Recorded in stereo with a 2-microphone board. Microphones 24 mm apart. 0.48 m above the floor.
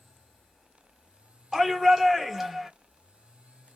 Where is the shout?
10° right (ahead or behind), 1.0 m.